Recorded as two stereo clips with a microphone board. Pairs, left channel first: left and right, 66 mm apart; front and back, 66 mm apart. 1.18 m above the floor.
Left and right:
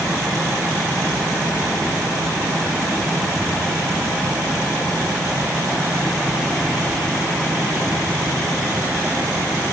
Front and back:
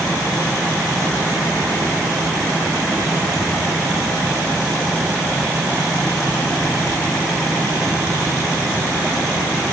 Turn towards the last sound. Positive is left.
No sound to turn to.